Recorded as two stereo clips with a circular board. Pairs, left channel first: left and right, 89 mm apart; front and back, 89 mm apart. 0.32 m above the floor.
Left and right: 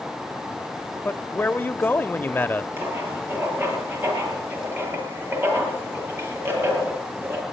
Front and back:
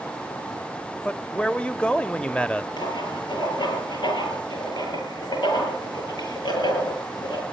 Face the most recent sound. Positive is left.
turn(degrees=-30)